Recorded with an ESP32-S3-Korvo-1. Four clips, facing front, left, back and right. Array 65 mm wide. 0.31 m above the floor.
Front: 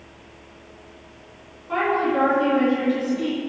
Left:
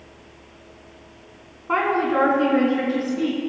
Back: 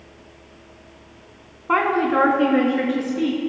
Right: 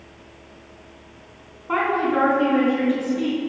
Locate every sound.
1.7 s a woman speaking: 170° left, 2.5 m; by 3.4 s 175° left, 4 m